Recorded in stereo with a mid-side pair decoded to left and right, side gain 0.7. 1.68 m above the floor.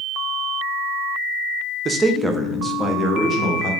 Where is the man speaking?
30° right, 0.6 m; by 3.7 s 40° left, 1.2 m.